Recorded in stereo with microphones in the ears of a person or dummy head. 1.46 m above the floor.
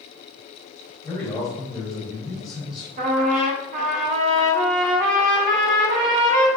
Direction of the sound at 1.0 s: Centre (ahead or behind).